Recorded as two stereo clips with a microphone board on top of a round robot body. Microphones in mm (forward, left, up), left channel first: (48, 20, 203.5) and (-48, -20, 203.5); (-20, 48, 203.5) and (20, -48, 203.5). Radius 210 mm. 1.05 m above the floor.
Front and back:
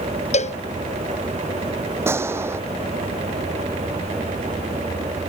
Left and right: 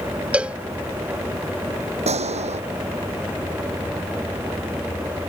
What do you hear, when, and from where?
0.3 s a cowbell: 10° left
2.1 s a gunshot: 90° right